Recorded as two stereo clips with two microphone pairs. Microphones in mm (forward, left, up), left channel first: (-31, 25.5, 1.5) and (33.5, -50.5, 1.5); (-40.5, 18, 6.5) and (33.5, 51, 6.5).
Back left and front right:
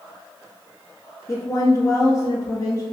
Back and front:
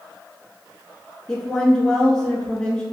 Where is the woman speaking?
135° left, 1.3 m.